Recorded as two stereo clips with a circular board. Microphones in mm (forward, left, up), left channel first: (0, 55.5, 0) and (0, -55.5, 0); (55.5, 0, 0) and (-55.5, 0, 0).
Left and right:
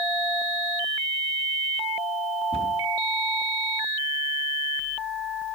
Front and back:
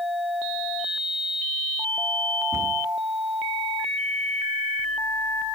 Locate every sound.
2.5 s a cupboard door: 115° right, 6 m